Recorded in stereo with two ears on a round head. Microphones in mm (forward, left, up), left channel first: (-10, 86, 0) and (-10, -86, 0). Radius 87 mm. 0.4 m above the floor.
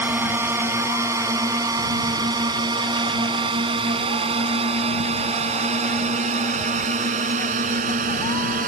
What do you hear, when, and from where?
0.0 s a drone: 10° right (ahead or behind); by 8.7 s 45° right (ahead or behind)